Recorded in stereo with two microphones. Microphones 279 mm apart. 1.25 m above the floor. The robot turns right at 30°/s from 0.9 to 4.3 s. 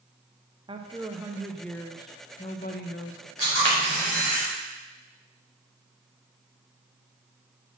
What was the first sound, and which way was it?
A woman speaking, 20° right.